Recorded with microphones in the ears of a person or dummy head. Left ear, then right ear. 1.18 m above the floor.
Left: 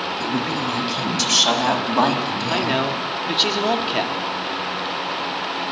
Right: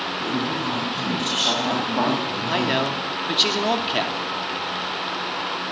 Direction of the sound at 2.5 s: 5° right (ahead or behind).